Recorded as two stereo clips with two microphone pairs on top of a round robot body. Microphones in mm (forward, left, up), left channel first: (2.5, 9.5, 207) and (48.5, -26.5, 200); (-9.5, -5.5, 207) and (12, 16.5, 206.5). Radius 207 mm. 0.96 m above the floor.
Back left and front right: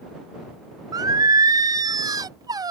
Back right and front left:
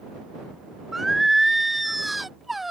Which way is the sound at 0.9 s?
40° right.